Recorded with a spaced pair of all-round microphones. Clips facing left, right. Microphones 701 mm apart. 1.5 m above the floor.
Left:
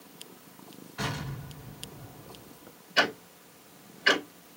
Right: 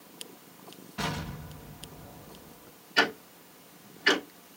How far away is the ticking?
About 0.9 m.